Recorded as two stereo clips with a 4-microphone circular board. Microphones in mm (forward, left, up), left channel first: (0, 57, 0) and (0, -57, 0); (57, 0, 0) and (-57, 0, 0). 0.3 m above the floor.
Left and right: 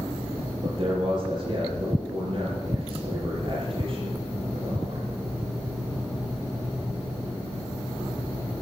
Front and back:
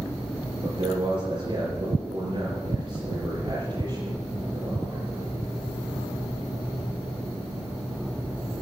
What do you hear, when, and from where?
0.6 s a man speaking: 140° right, 5.5 m